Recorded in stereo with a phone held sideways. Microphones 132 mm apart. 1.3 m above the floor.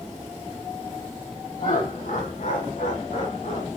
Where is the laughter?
85° left, 3.5 m; by 3.7 s 70° left (ahead or behind), 4 m.